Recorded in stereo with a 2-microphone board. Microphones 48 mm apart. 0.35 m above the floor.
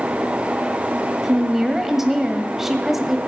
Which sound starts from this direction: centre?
A woman speaking, at 1.2 s.